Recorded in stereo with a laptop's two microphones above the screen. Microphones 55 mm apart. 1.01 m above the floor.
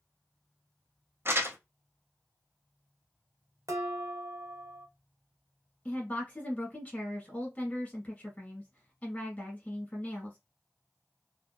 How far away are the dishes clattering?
About 1.0 m.